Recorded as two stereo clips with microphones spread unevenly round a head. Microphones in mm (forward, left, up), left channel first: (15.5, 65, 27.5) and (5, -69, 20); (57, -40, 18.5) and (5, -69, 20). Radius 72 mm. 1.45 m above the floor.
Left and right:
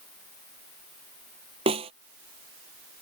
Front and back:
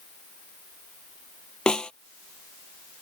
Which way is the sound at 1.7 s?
45° right.